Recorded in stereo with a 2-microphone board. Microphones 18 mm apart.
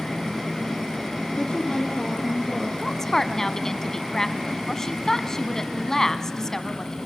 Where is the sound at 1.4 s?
25° left (ahead or behind), 3 m; by 2.7 s 40° left (ahead or behind), 3 m.